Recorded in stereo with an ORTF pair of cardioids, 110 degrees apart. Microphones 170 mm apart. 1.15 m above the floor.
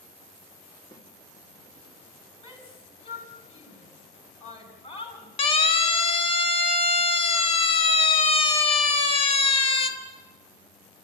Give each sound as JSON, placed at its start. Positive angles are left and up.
{"t": 0.9, "sound": "a snare drum", "azimuth_deg": 15, "distance_m": 3.5}
{"t": 2.4, "sound": "a shout", "azimuth_deg": 30, "distance_m": 8.0}
{"t": 5.4, "sound": "a siren", "azimuth_deg": 35, "distance_m": 2.5}